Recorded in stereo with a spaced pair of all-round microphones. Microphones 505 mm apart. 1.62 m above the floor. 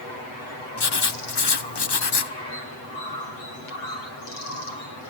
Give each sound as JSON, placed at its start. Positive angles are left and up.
{"t": 0.8, "sound": "writing", "side_deg": 50, "distance_m": 0.9}